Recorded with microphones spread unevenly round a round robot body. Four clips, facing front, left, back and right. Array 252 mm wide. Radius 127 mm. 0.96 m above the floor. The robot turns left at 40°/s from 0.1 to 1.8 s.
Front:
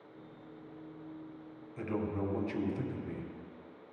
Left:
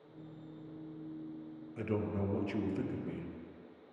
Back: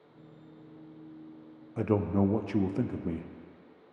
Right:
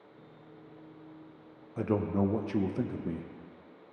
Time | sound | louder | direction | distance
1.8 | a man speaking | right 7 dB, back 8 dB | 145° right | 0.5 m